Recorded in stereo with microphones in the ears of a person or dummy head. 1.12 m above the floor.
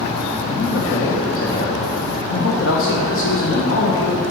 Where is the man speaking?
60° left (ahead or behind), 1.3 m.